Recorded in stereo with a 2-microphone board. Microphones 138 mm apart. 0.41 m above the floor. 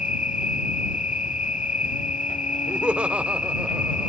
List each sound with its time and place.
0.0 s an insect: 75° left (ahead or behind)
2.7 s laughter: 10° right (ahead or behind)